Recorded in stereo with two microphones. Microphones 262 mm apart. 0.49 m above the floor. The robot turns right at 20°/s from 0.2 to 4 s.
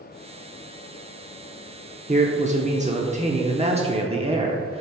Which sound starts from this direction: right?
A man speaking, at 2.1 s.